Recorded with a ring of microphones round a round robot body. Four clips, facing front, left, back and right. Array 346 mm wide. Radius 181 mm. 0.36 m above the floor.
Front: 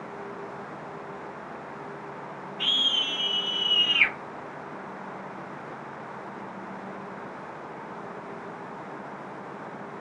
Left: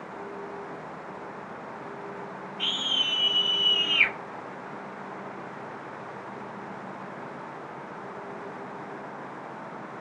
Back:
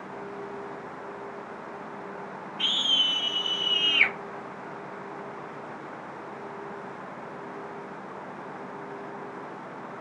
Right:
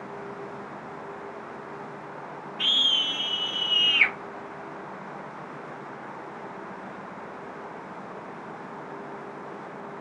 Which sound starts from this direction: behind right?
A scream, at 2.6 s.